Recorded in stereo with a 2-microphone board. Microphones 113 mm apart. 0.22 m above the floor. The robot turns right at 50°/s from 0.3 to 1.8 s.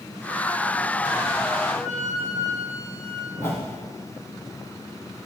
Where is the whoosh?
25° left (ahead or behind), 3.5 m.